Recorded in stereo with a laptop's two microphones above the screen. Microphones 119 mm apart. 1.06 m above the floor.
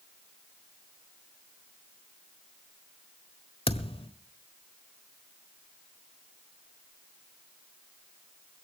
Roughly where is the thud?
Left.